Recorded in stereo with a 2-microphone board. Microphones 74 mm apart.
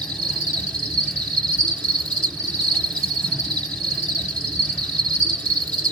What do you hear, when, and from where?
0.0 s an insect: 15° left (ahead or behind), 0.9 m